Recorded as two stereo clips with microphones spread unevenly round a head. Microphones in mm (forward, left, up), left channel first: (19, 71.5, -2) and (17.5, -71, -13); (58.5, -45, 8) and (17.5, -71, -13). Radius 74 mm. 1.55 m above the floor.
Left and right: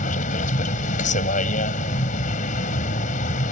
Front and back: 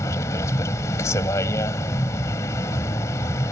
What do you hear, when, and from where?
0.0 s a vehicle: 55° left